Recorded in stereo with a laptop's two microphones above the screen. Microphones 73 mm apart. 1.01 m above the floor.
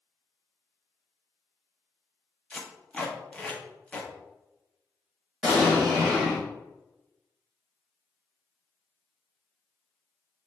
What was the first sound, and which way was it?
Tape being pulled, 15° left (ahead or behind).